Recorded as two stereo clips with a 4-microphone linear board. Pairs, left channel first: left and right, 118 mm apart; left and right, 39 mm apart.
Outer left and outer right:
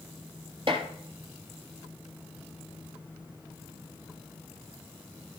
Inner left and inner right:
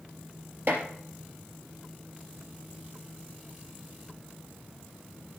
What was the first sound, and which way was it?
Dishes clattering, 55° right (ahead or behind).